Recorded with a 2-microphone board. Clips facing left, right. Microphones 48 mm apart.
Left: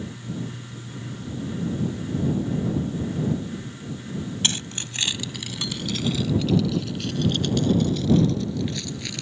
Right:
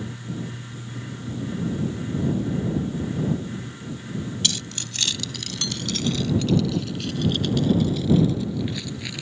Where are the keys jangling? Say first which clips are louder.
Left 1 dB; 35° left (ahead or behind); by 9.2 s 10° right (ahead or behind).